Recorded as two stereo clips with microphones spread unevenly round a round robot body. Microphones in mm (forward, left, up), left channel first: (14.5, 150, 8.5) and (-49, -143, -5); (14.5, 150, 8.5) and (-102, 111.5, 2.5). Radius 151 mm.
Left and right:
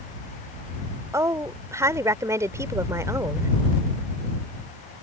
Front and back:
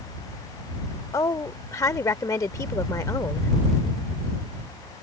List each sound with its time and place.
1.1 s a woman speaking: 35° right